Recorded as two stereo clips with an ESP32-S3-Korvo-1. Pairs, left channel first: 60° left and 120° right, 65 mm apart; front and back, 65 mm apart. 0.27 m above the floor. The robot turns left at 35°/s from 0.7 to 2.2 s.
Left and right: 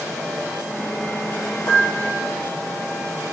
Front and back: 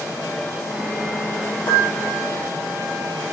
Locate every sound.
1.7 s a piano: 25° left, 4 m; by 2.3 s 5° left, 4 m